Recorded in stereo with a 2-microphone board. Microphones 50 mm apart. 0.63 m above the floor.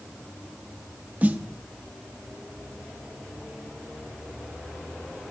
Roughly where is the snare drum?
Right.